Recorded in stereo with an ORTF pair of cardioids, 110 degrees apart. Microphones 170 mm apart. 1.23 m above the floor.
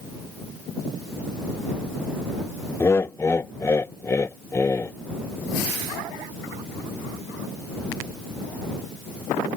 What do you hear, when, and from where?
2.8 s laughter: 15° left